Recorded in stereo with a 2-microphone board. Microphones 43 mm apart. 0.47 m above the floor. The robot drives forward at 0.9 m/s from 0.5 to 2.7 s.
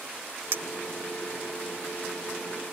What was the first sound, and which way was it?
A clink, 60° right (ahead or behind).